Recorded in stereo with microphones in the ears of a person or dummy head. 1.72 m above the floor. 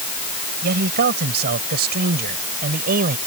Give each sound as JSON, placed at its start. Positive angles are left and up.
{"t": 0.6, "sound": "a man speaking", "side_deg": -50}